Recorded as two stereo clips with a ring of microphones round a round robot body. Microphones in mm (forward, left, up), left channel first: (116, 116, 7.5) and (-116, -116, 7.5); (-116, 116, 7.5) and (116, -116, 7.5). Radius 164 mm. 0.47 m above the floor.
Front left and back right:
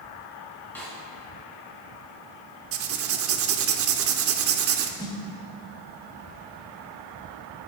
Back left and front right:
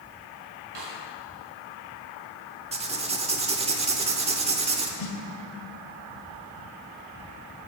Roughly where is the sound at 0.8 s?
Ahead right.